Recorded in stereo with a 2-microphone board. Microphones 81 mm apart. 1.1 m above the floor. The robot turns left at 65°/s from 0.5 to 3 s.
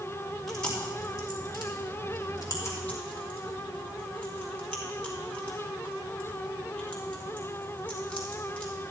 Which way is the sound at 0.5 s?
Centre (ahead or behind).